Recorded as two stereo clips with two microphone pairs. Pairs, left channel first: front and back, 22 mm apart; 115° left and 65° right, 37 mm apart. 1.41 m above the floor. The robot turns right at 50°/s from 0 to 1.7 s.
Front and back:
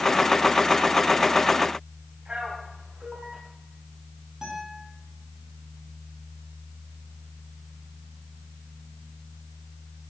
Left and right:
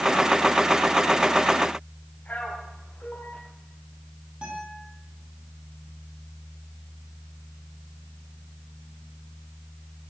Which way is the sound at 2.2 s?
155° left.